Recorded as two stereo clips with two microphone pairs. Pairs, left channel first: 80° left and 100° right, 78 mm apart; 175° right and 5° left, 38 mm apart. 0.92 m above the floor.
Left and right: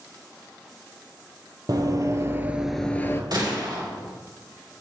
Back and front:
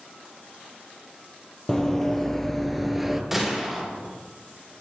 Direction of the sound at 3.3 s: 75° right.